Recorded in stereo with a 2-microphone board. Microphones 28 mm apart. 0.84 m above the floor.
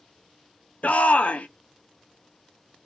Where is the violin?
No violin in this recording.